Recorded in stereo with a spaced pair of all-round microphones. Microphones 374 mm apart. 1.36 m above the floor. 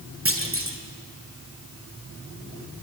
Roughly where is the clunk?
Right.